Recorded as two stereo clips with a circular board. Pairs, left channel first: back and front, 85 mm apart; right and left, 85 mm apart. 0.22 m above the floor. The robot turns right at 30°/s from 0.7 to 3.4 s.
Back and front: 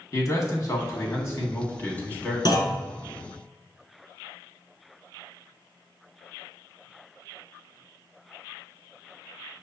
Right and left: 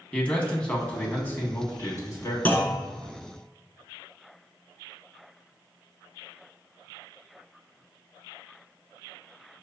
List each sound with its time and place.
0.1 s a man speaking: 160° right, 1.4 m; by 2.4 s 110° right, 1.4 m
2.5 s a clunk: 155° right, 1.2 m; by 2.8 s 145° right, 1.2 m